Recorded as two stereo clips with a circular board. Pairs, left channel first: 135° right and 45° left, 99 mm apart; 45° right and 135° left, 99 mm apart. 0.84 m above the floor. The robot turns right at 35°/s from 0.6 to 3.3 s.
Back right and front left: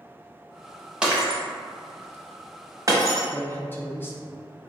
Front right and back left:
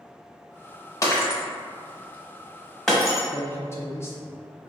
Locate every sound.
1.0 s breaking glass: 30° right, 0.7 m; by 3.3 s 50° left, 0.7 m
3.3 s a man speaking: 85° right, 0.5 m